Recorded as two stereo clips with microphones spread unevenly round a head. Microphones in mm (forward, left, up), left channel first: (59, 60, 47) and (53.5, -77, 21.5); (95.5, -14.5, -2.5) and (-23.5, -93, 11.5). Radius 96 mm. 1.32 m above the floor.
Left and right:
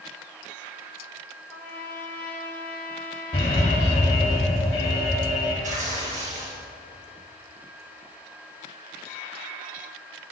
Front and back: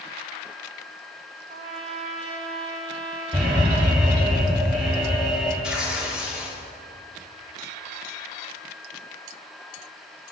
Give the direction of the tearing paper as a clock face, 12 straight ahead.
2 o'clock.